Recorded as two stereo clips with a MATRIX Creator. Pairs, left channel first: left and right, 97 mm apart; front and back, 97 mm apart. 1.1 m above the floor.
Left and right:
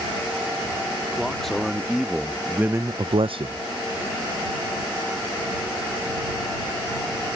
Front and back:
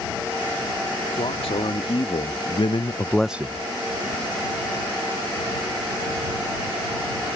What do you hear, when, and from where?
1.1 s a man speaking: 5° left; by 3.6 s 130° right